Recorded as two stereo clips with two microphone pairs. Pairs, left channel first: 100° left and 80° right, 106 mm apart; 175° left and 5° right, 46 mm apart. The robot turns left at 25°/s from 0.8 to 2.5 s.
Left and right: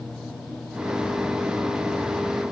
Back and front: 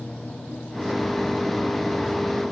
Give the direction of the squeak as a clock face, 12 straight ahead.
I don't hear a squeak.